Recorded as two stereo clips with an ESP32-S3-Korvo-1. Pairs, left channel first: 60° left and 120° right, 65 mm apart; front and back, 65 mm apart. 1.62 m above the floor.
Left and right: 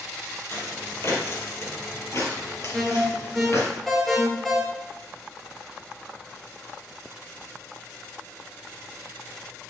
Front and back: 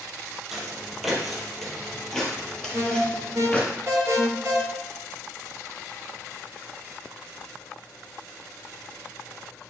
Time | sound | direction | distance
0.5 | footsteps | 100° left | 3 m
2.7 | an alarm | 145° left | 4 m